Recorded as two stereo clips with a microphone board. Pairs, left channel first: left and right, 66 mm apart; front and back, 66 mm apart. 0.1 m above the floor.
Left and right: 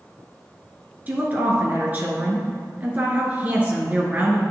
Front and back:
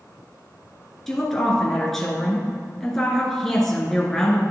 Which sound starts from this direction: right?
A woman speaking, at 1.1 s.